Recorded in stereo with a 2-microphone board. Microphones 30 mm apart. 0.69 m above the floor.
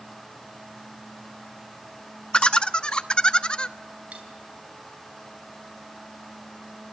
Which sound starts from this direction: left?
Laughter, at 2.3 s.